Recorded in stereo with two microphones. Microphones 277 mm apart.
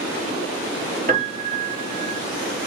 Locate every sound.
1.1 s a piano: 30° right (ahead or behind), 2 m